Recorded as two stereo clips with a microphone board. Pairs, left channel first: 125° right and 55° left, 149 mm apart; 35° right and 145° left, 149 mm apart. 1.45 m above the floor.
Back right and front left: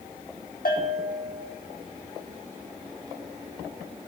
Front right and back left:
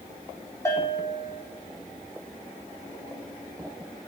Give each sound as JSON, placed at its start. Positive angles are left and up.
{"t": 0.7, "sound": "a bell", "azimuth_deg": -105, "distance_m": 4.5}